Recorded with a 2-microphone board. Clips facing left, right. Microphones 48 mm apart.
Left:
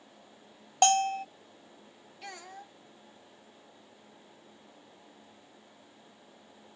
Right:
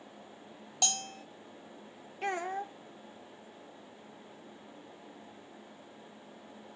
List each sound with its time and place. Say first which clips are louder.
0.8 s a bell: left 13 dB; 40° left (ahead or behind)
2.2 s a child speaking: right 11 dB; 40° right (ahead or behind)